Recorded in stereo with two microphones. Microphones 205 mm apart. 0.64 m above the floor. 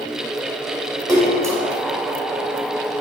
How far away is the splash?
About 2 m.